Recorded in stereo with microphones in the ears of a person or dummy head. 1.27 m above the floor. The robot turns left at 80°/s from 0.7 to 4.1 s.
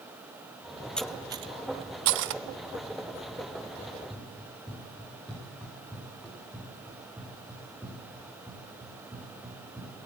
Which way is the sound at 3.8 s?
10° right (ahead or behind).